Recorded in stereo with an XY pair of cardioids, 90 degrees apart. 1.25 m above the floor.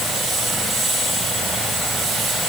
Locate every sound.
Only background noise.